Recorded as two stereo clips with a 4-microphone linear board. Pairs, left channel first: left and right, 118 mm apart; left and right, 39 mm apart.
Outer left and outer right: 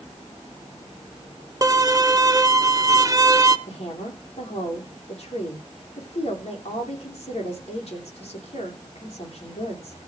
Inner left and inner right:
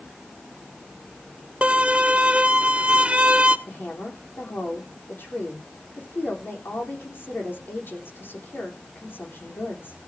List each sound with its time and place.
1.6 s a violin: 30° right (ahead or behind), 0.7 m
3.7 s a woman speaking: 55° left (ahead or behind), 8.5 m